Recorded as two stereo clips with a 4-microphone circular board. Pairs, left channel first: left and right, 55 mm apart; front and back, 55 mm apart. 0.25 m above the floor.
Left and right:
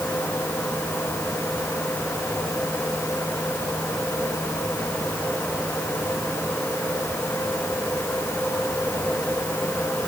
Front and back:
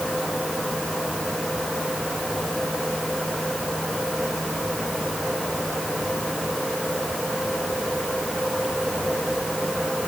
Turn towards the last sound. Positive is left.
No sound to turn to.